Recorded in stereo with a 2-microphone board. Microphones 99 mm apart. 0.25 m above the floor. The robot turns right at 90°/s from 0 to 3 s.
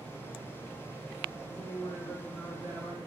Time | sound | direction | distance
1.5 | a woman speaking | 95° left | 3 m